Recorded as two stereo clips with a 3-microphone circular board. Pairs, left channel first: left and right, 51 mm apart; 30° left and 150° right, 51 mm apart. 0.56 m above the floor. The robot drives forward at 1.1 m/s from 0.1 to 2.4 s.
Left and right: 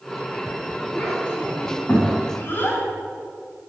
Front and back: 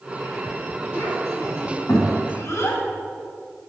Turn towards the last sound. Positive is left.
turn(degrees=40)